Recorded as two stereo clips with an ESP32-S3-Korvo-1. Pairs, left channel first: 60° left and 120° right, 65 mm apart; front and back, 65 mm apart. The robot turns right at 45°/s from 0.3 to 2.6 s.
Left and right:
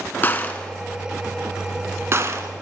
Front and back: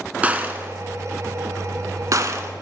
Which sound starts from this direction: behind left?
A gunshot, at 0.2 s.